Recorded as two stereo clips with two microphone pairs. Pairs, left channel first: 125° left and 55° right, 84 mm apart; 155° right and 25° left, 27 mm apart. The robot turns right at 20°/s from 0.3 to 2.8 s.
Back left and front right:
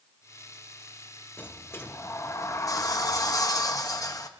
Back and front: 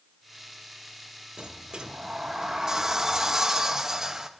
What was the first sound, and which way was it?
A sliding door, 65° left.